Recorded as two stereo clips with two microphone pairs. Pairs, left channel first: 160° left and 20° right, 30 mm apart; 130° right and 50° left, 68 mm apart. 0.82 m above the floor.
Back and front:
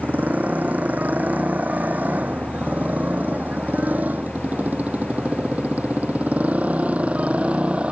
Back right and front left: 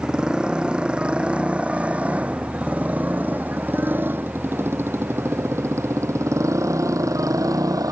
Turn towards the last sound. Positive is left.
turn(degrees=25)